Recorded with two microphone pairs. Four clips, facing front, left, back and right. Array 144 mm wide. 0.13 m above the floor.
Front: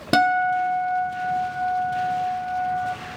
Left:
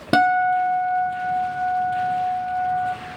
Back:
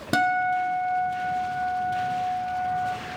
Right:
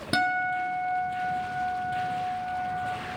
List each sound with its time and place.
0.1 s a guitar: 60° left, 1.0 m